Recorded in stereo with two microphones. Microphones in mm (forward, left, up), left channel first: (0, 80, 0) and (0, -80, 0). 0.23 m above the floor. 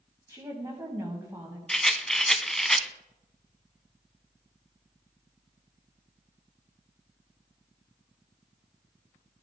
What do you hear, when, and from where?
0.3 s a woman speaking: 20° right (ahead or behind), 1.6 m
1.7 s a rattle: 5° left (ahead or behind), 0.5 m